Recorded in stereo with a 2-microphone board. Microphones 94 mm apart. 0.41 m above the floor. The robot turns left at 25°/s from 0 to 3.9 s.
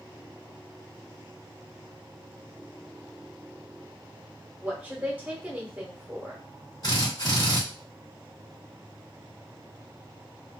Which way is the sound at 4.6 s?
20° right (ahead or behind).